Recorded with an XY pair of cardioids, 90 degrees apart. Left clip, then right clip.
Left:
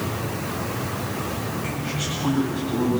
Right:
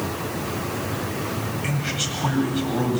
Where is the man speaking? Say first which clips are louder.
Right 2 dB; 70° right, 8.5 m.